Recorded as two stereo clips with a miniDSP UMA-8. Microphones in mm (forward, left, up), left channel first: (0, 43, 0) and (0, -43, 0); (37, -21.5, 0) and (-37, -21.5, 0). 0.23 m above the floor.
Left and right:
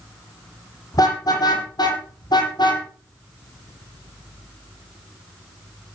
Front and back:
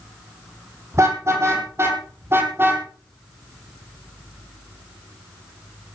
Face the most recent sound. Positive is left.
turn(degrees=120)